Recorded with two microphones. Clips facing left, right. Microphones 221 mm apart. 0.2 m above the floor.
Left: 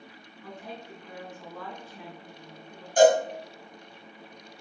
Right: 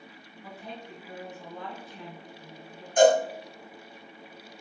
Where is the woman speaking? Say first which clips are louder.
Left 1 dB; 25° right (ahead or behind), 1.7 m.